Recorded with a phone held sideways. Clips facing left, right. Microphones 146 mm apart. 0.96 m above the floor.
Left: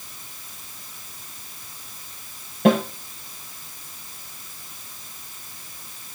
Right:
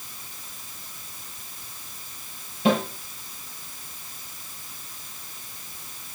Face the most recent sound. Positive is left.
turn(degrees=55)  # may be behind; listen again after turning